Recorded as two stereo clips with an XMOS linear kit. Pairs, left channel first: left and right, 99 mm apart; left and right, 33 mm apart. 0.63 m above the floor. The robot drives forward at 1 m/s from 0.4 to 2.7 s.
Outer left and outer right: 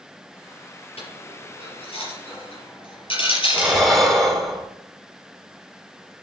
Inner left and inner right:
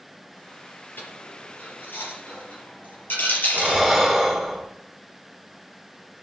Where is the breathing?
Centre (ahead or behind), 2.5 m.